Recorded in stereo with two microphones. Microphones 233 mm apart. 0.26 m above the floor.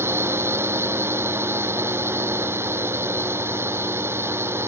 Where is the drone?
10° right (ahead or behind).